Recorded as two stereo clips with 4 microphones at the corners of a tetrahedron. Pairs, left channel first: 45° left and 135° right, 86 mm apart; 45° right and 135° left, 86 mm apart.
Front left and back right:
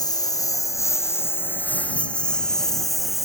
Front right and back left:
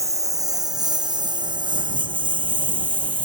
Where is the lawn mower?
85° left; by 3.2 s 140° left.